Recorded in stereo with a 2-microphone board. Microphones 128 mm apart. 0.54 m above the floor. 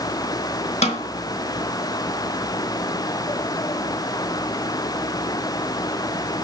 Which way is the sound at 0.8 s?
60° left (ahead or behind).